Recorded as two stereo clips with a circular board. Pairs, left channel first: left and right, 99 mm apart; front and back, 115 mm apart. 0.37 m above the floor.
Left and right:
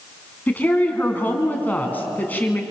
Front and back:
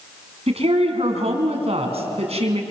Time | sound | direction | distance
0.5 | a woman speaking | 160° left | 3.5 m